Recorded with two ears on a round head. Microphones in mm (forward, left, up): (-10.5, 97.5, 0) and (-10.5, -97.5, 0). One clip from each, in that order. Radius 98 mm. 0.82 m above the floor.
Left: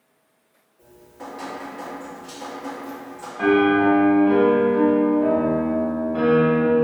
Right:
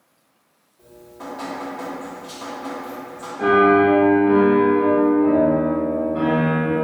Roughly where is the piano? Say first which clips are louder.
Right 3 dB; left.